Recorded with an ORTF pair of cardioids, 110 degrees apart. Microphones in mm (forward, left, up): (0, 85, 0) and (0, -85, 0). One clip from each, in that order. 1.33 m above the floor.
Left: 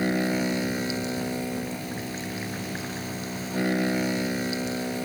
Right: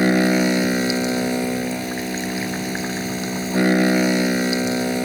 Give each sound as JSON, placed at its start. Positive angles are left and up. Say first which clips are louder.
{"t": 0.0, "sound": "a machine running", "louder": "right 8 dB", "azimuth_deg": -45}